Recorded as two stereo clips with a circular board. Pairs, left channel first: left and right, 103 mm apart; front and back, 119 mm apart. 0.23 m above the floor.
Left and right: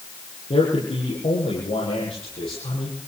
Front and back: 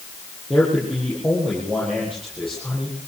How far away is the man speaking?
About 8.5 m.